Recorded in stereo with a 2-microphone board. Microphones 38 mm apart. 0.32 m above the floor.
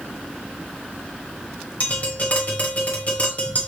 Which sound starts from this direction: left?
Tapping, at 1.8 s.